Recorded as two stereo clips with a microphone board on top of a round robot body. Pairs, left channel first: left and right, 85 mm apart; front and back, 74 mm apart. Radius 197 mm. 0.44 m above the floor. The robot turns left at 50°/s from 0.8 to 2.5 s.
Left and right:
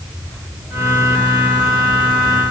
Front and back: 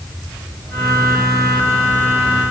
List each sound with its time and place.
Only background noise.